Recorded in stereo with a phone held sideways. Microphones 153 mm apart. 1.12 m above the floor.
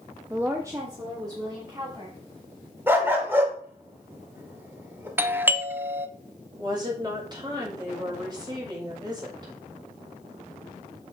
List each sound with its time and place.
0.3 s a woman speaking: 15° right (ahead or behind), 0.8 m; by 2.2 s 30° right (ahead or behind), 3 m
2.9 s a dog barking: 15° right (ahead or behind), 1.7 m
5.2 s a doorbell: 15° right (ahead or behind), 0.6 m
6.6 s a woman speaking: 30° right (ahead or behind), 5 m